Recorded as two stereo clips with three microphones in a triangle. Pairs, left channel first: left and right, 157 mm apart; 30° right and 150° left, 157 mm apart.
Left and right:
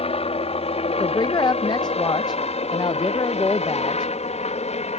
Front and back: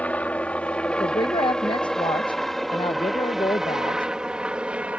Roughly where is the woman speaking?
Ahead left.